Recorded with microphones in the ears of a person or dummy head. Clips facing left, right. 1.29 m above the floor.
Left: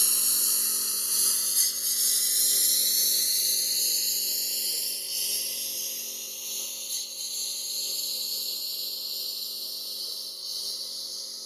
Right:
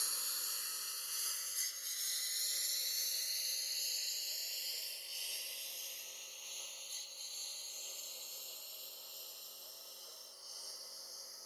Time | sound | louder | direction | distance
0.0 | a lawn mower | left 12 dB | 55° left (ahead or behind) | ?